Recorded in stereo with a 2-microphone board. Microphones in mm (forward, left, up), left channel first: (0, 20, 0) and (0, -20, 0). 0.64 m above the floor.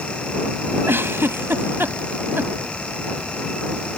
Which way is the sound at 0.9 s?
70° right (ahead or behind).